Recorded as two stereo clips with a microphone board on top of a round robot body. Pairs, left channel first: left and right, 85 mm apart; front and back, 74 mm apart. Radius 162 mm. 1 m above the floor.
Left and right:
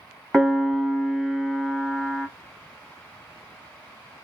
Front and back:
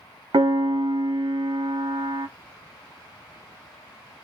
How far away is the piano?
About 0.9 m.